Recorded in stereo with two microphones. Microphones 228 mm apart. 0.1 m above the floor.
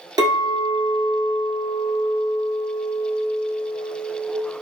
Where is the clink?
15° right (ahead or behind), 1.1 m.